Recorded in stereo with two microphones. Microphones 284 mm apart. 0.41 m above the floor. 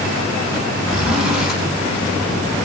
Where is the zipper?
Centre (ahead or behind), 3.5 m.